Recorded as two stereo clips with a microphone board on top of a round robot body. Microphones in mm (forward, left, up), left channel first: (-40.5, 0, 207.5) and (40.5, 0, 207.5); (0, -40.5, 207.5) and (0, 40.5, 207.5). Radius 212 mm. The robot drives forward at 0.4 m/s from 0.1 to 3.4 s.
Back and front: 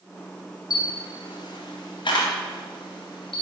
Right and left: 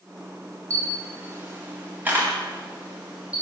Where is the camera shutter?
145° left, 0.7 m; by 3.4 s 165° left, 1.7 m.